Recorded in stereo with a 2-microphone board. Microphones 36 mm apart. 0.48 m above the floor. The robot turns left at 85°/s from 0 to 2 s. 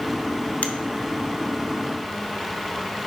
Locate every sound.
0.6 s a finger snap: 55° left (ahead or behind), 0.7 m; by 0.7 s 50° left (ahead or behind), 0.7 m